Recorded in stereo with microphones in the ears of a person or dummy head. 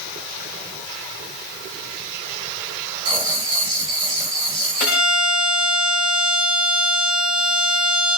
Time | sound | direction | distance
3.0 | writing | 35° right (ahead or behind) | 1.6 m
4.8 | a violin | 65° left (ahead or behind) | 6 m